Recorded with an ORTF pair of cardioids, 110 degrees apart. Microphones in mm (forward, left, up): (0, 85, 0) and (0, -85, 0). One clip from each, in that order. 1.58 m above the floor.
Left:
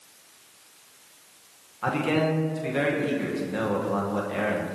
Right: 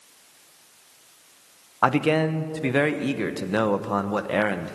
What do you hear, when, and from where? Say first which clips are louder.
1.8 s a man speaking: right 4 dB; 65° right, 1.1 m